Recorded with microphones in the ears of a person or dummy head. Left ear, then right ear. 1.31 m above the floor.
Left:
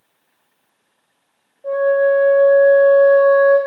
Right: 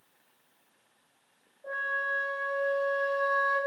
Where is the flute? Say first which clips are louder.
Left 16 dB; 5° left (ahead or behind), 0.7 m.